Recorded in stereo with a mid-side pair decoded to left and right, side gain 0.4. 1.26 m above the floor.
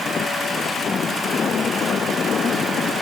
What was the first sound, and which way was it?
Only background noise.